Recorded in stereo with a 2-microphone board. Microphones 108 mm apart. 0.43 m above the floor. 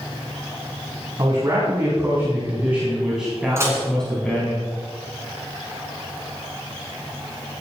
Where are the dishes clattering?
25° right (ahead or behind), 2.5 m.